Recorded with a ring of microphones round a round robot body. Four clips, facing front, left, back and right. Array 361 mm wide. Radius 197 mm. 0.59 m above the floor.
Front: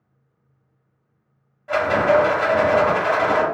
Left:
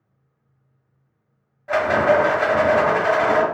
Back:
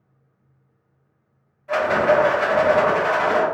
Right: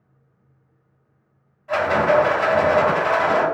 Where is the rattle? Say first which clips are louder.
Left 1 dB, front 1 dB; 65° left, 1.7 m.